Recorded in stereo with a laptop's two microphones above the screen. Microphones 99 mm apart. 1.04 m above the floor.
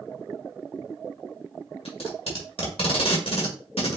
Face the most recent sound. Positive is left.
turn(degrees=75)  # may be behind; listen again after turning